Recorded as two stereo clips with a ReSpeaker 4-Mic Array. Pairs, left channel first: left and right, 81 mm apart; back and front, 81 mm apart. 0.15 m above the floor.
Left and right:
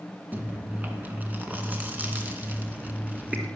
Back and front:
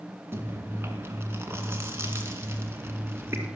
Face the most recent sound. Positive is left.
turn(degrees=-35)